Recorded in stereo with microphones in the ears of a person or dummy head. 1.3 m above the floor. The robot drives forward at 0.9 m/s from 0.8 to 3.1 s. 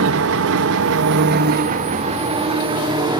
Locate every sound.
0.0 s an engine running: 80° right, 1.1 m; by 3.2 s 25° right (ahead or behind), 2.5 m